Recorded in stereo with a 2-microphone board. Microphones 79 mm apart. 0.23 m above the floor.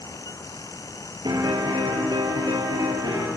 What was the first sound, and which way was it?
A piano, 70° right (ahead or behind).